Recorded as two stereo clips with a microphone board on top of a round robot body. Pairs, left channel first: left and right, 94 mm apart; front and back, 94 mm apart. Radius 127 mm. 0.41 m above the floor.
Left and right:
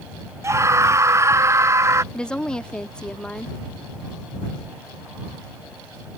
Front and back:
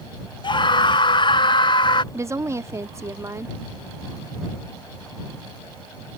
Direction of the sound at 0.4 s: 30° right.